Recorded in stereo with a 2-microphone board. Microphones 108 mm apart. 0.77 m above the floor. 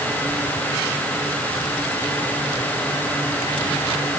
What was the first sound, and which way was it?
Only background noise.